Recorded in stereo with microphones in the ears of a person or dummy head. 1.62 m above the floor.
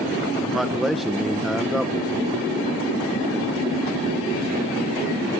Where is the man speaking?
Centre (ahead or behind), 1.3 m.